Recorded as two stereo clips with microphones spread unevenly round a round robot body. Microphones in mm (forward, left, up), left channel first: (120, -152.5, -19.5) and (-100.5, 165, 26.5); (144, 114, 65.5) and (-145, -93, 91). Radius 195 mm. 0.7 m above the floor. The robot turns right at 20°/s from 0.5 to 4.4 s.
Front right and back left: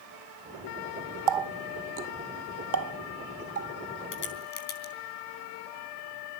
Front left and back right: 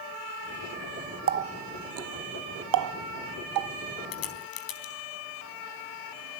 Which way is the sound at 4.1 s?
5° left.